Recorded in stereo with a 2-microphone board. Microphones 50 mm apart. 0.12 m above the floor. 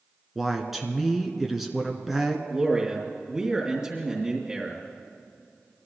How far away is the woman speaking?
About 1.2 m.